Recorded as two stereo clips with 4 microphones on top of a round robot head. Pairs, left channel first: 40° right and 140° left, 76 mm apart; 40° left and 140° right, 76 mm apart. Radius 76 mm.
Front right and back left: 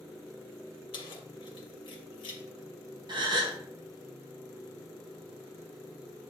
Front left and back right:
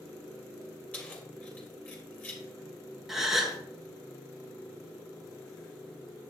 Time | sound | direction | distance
0.9 | keys jangling | 30° right | 2 m
3.1 | a gasp | 135° left | 1.6 m